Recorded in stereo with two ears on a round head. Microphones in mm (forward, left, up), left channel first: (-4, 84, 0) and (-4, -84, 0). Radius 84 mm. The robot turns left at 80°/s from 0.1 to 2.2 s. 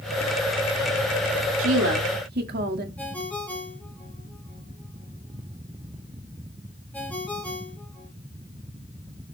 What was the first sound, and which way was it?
A woman speaking, 75° right.